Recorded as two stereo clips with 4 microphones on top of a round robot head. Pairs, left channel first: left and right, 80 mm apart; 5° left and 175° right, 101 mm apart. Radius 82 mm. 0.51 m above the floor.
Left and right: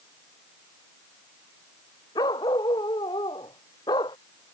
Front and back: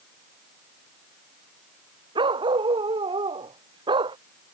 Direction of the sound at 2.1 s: 145° left.